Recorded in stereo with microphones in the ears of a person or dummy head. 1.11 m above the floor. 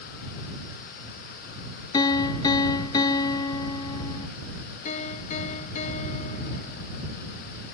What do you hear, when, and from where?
1.9 s a piano: 20° left (ahead or behind)
4.8 s a piano: 40° left (ahead or behind)